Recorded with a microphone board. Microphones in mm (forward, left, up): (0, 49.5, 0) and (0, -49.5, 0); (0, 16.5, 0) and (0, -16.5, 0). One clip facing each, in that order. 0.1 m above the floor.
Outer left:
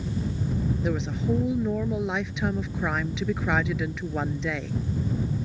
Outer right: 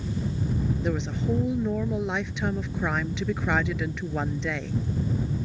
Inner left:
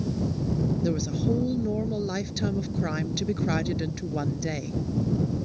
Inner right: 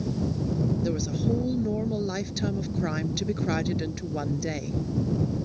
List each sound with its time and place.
0.8 s a woman speaking: centre (ahead or behind)